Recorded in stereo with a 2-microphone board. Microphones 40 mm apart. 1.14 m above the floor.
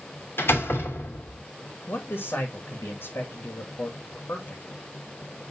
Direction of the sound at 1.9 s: 75° left (ahead or behind).